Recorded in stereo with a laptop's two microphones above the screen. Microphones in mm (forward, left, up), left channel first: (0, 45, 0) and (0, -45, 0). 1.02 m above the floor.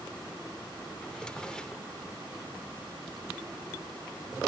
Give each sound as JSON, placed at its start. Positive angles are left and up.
{"t": 1.0, "sound": "a drawer", "side_deg": 10, "distance_m": 0.7}